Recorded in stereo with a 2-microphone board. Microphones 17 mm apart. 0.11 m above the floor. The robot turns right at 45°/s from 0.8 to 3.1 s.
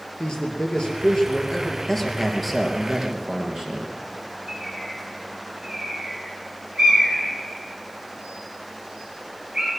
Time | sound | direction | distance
0.2 | a man speaking | 125° left | 2.5 m
1.9 | a man speaking | 160° left | 2.5 m
4.5 | a bird | 50° right (ahead or behind) | 3 m